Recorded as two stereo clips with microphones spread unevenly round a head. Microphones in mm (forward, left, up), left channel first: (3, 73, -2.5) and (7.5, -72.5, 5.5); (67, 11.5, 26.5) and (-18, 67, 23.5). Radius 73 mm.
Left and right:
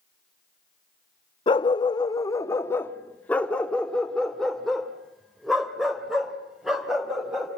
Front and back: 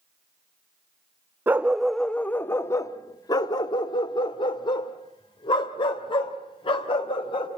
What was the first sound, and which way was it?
A dog barking, 95° left.